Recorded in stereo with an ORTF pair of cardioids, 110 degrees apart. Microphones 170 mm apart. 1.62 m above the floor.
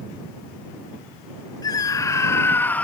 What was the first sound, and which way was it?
A scream, 25° left.